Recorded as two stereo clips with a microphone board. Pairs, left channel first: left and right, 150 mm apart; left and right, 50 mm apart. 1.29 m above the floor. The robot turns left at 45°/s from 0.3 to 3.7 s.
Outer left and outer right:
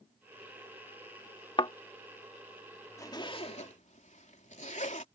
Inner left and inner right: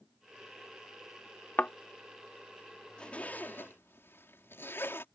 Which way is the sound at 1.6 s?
35° left (ahead or behind).